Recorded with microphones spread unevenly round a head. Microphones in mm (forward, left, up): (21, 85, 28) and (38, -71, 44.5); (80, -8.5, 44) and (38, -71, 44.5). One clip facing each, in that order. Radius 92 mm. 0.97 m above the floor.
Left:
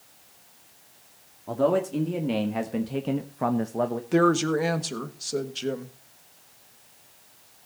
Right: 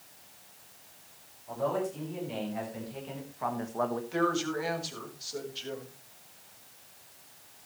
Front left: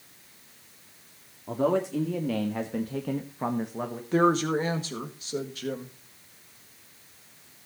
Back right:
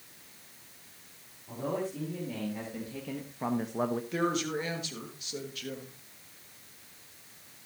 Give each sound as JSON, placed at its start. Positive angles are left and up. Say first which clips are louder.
{"t": 1.5, "sound": "a man speaking", "louder": "left 8 dB, front left 9 dB", "azimuth_deg": 80, "distance_m": 2.0}
{"t": 4.1, "sound": "a woman speaking", "louder": "left 11 dB, front left 8 dB", "azimuth_deg": 115, "distance_m": 1.6}